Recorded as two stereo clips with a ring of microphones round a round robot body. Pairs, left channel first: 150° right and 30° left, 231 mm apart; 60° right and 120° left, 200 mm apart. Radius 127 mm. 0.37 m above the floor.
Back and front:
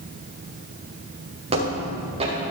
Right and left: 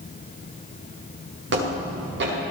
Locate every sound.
1.5 s footsteps: 95° left, 6.5 m